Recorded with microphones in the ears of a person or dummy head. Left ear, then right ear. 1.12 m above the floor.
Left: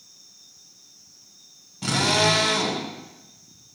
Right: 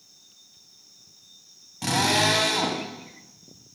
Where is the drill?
45° right (ahead or behind), 4.5 m.